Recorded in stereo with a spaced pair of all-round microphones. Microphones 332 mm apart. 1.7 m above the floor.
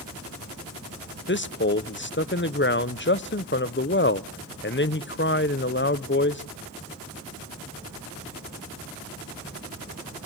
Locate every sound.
1.3 s a man speaking: 35° left (ahead or behind), 0.9 m